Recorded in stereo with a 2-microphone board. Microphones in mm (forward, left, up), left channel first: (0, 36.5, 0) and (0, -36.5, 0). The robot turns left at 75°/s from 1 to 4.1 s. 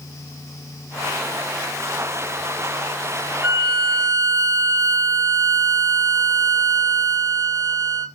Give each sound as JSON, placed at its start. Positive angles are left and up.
{"t": 3.4, "sound": "a violin", "azimuth_deg": -50, "distance_m": 1.0}